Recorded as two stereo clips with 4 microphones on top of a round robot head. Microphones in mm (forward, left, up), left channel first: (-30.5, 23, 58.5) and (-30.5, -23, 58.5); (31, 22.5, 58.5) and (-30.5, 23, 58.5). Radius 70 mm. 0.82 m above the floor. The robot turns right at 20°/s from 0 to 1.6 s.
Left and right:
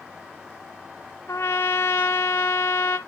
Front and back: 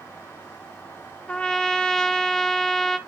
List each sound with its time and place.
1.3 s a trumpet: 70° left, 0.5 m; by 3.0 s 75° left, 0.5 m